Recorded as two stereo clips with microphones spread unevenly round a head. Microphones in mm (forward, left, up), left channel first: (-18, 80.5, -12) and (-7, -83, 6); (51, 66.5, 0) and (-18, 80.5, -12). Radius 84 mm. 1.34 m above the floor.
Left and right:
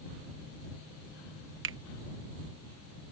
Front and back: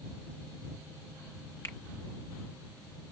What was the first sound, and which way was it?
A finger snap, 90° right.